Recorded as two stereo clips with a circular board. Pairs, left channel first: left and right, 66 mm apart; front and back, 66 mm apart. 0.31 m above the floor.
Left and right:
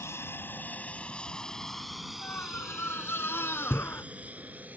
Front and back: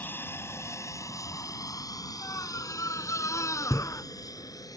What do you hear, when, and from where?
0.0 s an aircraft: 50° left; by 4.8 s 25° right
2.2 s a scream: 35° left